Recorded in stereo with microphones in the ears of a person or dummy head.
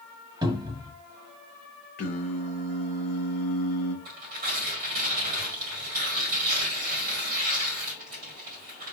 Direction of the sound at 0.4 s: 25° right (ahead or behind).